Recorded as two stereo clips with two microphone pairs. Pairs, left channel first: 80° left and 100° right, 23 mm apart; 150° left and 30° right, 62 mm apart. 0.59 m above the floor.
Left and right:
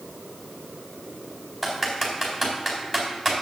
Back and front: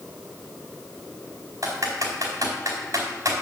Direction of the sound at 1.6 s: Straight ahead.